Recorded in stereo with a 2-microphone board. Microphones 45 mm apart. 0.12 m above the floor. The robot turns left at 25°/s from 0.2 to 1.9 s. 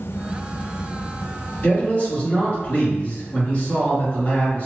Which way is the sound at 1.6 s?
35° left (ahead or behind).